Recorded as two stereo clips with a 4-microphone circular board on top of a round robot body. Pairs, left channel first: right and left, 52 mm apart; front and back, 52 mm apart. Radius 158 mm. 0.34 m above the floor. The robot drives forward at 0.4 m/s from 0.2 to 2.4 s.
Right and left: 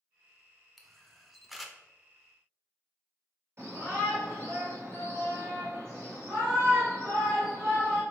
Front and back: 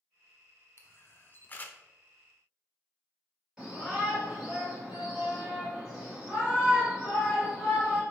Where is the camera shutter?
5° left, 0.9 m.